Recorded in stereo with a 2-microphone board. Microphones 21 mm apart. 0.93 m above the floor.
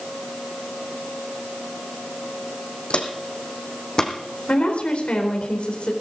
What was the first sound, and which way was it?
Footsteps, 60° left (ahead or behind).